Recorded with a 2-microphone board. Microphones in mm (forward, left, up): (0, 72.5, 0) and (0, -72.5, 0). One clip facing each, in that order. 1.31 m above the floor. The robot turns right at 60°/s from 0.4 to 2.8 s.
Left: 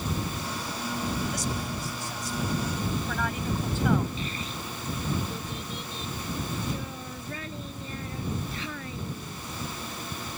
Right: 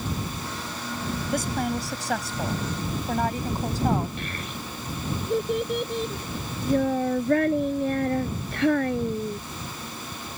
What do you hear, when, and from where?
1.3 s a woman speaking: 130° right; by 4.1 s 40° right
4.2 s a child speaking: 65° right (ahead or behind)